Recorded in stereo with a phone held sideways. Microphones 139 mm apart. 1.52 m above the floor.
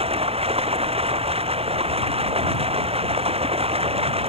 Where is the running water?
45° right (ahead or behind).